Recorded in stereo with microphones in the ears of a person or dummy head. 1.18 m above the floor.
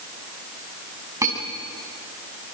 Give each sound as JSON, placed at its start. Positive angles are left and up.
{"t": 1.2, "sound": "cutlery clinking", "side_deg": -20, "distance_m": 6.0}